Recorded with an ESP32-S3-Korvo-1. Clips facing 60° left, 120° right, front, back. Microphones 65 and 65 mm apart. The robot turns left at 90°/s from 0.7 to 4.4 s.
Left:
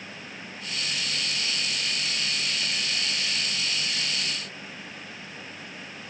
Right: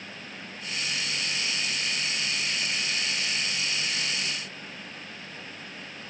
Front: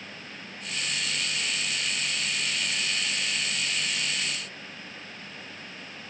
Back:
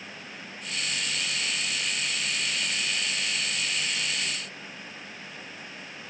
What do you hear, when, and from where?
Only background noise.